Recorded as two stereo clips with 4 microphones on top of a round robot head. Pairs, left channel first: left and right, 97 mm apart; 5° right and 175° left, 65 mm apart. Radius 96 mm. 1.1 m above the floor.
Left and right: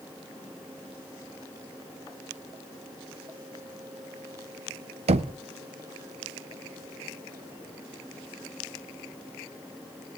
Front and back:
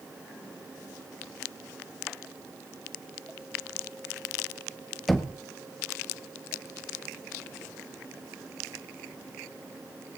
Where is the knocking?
95° right, 0.6 m.